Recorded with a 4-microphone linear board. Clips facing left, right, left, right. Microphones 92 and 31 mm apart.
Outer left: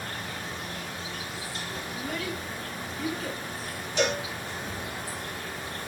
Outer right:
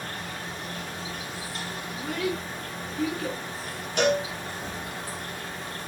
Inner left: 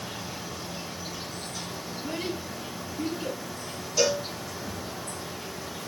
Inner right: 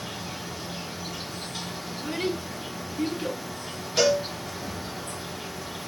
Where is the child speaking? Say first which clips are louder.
Outer right 5 dB, inner right 4 dB; 85° right, 1.9 m.